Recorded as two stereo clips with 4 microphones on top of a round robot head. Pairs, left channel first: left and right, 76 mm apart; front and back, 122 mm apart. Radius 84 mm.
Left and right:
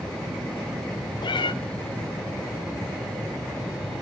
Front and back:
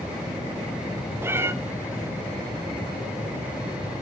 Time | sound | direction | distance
1.2 | a cat meowing | 110° left | 0.7 m